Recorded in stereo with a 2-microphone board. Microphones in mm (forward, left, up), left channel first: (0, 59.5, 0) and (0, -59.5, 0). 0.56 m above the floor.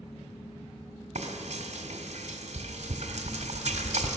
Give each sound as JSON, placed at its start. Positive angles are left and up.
{"t": 1.1, "sound": "frying", "side_deg": -70, "distance_m": 1.4}